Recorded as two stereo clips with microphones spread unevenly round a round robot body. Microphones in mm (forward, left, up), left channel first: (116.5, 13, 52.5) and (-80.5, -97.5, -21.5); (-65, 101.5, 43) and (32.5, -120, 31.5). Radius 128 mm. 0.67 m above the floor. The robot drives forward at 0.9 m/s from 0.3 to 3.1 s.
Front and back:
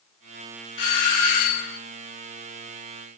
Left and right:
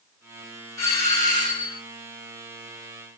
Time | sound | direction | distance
0.8 | a doorbell | 35° left | 4 m